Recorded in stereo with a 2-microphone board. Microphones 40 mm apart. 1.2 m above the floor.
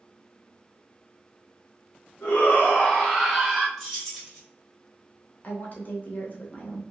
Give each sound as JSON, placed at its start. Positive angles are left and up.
{"t": 2.2, "sound": "a shout", "side_deg": 50, "distance_m": 1.1}
{"t": 3.8, "sound": "keys jangling", "side_deg": 5, "distance_m": 1.2}
{"t": 5.4, "sound": "a woman speaking", "side_deg": 45, "distance_m": 0.8}